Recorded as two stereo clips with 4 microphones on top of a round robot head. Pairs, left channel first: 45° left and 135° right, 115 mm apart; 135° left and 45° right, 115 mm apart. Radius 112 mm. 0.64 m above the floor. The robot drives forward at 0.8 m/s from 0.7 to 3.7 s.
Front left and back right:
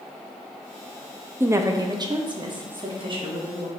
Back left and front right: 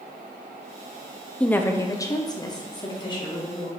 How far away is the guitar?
No guitar in this recording.